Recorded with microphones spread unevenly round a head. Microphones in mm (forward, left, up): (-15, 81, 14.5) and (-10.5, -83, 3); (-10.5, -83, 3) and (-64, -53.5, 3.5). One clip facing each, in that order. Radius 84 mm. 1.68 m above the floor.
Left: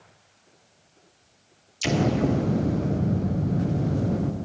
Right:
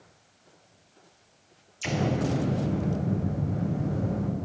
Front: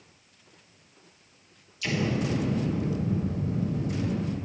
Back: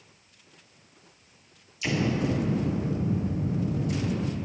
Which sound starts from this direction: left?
An explosion, at 1.8 s.